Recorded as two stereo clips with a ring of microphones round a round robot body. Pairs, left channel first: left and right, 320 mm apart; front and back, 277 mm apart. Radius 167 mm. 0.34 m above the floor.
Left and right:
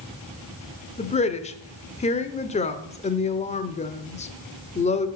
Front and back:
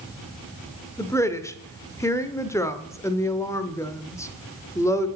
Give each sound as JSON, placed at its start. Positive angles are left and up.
{"t": 1.0, "sound": "a woman speaking", "azimuth_deg": 65, "distance_m": 0.8}